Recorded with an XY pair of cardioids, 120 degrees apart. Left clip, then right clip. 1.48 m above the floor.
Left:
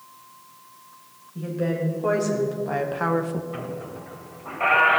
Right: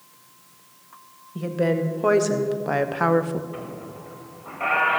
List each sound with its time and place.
1.4 s a woman speaking: 50° right, 2 m; by 3.4 s straight ahead, 0.6 m
3.5 s a squeak: 20° left, 1.5 m